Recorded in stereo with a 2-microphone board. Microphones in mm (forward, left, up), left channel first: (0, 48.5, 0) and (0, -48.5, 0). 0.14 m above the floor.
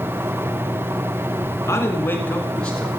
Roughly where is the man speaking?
Left.